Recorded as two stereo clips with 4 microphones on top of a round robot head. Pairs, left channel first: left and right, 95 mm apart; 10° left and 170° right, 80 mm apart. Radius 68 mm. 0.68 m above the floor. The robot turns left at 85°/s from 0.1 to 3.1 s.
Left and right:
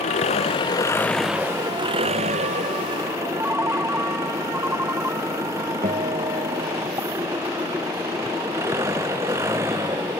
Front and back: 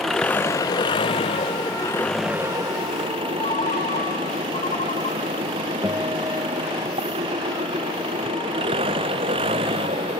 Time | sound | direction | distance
0.0 | an engine running | 95° left | ?
3.4 | a ringtone | 20° right | ?
5.8 | a guitar | 115° right | ?